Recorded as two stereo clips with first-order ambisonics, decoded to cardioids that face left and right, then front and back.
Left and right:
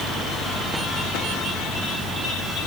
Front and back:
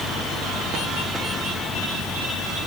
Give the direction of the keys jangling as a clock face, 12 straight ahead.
I don't hear keys jangling.